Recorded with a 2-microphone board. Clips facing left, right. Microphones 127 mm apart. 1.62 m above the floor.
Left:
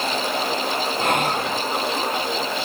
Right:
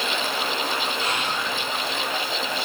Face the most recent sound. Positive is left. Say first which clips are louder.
# left 6 dB
turn(degrees=50)  # may be behind; listen again after turning